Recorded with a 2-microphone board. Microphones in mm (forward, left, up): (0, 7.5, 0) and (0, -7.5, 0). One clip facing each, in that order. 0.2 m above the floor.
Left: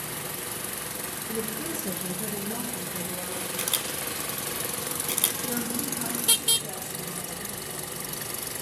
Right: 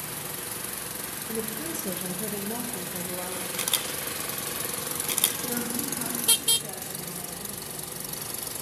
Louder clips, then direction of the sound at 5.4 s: Left 1 dB; 10° right (ahead or behind).